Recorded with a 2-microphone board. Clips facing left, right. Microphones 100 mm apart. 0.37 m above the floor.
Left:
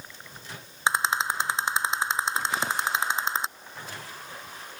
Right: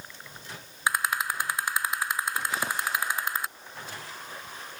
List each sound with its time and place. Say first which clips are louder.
0.9 s a rattle: left 3 dB; 25° left (ahead or behind)